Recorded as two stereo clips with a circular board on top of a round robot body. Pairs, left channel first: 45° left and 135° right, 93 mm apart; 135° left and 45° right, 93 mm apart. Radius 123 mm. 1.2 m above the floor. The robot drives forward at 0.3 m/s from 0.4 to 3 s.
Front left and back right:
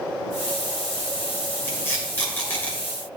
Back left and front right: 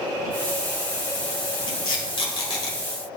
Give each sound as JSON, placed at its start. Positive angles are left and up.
{"t": 1.7, "sound": "tape being pulled", "azimuth_deg": 110, "distance_m": 3.0}